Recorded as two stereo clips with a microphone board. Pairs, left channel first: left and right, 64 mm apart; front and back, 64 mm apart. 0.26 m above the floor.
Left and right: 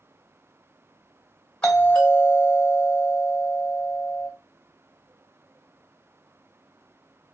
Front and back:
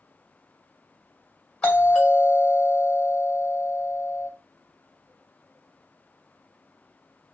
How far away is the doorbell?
About 2.0 m.